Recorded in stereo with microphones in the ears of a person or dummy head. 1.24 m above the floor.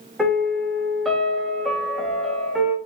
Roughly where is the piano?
Centre.